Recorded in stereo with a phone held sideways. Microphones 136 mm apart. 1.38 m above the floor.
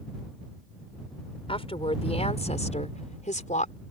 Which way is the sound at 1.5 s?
45° left (ahead or behind).